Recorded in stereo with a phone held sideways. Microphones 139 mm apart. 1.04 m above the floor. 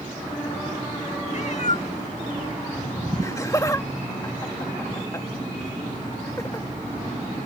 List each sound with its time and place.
1.3 s a cat meowing: 55° left (ahead or behind)
3.2 s laughter: 20° left (ahead or behind)